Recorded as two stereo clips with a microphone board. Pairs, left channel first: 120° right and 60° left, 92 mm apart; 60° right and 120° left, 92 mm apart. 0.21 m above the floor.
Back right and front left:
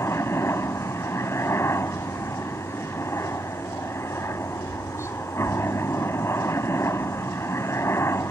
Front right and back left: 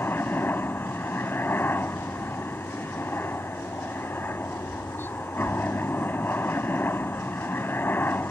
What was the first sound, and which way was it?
A helicopter, 100° right.